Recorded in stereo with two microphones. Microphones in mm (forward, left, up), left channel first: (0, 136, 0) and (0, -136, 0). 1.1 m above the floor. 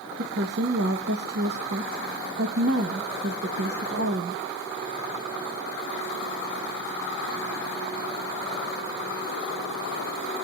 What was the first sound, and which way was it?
A woman speaking, 55° right (ahead or behind).